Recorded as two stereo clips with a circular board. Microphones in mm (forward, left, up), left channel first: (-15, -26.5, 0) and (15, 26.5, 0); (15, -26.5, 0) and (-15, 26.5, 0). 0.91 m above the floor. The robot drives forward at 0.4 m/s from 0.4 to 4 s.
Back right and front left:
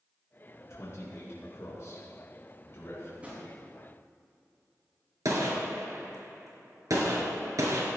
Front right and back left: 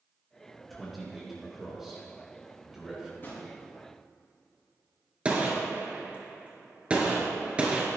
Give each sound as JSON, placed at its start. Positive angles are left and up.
{"t": 0.7, "sound": "a man speaking", "azimuth_deg": -150, "distance_m": 2.0}
{"t": 3.2, "sound": "a drawer", "azimuth_deg": -5, "distance_m": 4.0}
{"t": 5.2, "sound": "a gunshot", "azimuth_deg": 50, "distance_m": 2.0}